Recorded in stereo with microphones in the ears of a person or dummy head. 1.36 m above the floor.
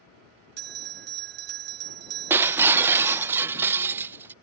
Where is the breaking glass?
10° right (ahead or behind).